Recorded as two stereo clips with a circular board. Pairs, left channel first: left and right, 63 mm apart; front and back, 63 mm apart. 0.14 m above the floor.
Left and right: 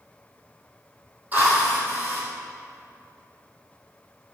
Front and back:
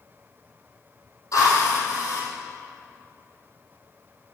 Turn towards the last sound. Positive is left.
turn(degrees=-30)